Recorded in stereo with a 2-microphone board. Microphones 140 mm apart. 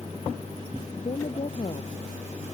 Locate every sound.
0.9 s a woman speaking: 50° left (ahead or behind); by 1.9 s 45° left (ahead or behind)